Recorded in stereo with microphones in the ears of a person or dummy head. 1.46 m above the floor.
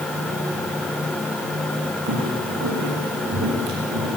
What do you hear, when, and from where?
2.1 s footsteps: 60° right (ahead or behind), 5 m; by 4.1 s 70° right (ahead or behind), 5.5 m